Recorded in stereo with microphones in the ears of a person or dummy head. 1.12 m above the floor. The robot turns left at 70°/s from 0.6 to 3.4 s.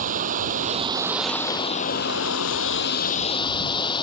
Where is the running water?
135° right; by 4.0 s 30° left.